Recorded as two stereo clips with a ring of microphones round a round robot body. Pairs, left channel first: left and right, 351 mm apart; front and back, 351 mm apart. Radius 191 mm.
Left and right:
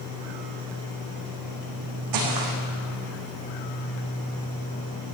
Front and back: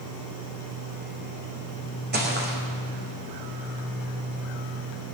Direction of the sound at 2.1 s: 120° right.